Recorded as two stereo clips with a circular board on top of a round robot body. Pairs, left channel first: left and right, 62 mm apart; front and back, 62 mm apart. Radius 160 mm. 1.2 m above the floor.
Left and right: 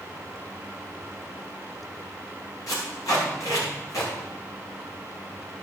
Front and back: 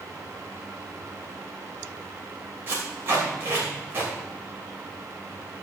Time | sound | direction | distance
2.7 | tape being pulled | 125° left | 3 m